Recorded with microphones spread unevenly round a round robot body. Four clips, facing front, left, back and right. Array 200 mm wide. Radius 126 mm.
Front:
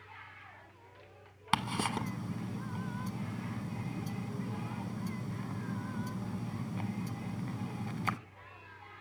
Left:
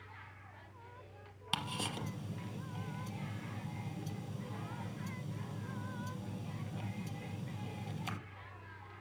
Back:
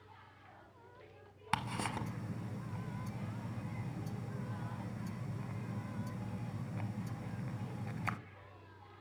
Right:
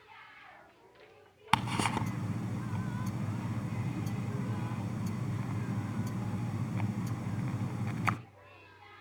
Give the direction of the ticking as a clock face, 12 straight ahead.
2 o'clock.